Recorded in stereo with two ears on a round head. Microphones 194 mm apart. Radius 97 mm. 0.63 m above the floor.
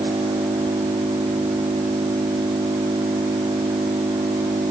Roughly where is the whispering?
No whispering in this recording.